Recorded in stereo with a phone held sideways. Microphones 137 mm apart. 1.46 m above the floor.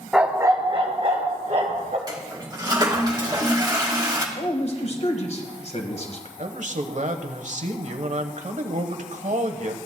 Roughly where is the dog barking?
Centre.